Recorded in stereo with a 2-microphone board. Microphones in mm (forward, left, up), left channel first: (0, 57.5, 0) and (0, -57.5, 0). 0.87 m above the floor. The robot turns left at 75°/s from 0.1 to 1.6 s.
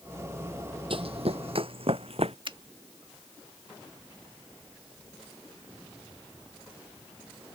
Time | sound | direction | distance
0.9 | running footsteps | 55° right (ahead or behind) | ?
2.5 | a finger snap | 50° right (ahead or behind) | ?